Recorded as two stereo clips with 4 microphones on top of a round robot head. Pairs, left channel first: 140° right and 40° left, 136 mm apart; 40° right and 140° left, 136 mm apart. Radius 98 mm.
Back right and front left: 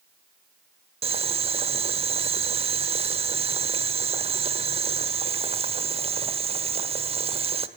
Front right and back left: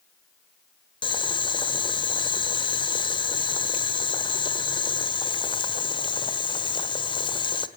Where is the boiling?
5° left, 1.4 m.